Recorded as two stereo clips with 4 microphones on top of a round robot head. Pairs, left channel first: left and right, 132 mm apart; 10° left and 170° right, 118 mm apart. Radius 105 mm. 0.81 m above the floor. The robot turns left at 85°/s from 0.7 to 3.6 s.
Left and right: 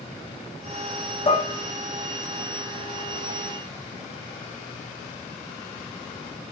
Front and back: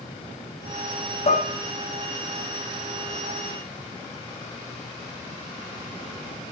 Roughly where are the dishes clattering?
Ahead left.